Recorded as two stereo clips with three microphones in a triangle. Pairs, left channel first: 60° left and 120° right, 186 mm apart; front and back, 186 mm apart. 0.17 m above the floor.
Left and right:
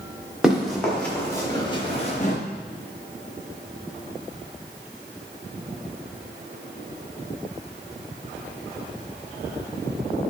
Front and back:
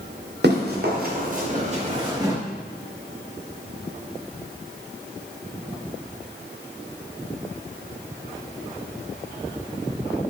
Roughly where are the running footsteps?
Behind left.